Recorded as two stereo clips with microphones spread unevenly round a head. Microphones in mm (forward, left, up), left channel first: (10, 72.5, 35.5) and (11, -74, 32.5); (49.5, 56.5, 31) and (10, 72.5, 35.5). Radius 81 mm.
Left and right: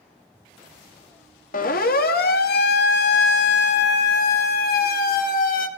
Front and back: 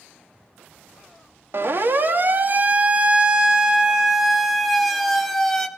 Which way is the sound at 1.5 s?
125° left.